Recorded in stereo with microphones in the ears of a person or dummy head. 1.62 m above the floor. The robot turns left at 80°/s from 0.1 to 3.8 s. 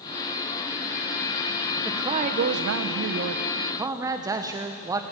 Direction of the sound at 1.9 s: 10° right.